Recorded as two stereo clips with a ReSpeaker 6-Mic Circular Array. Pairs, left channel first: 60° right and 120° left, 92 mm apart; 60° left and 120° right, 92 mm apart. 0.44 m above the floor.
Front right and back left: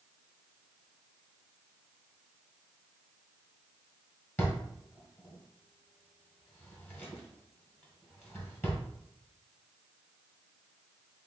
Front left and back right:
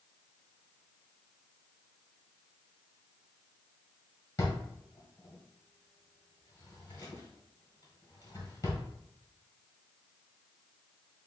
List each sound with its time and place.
4.4 s a drawer: 5° left, 1.5 m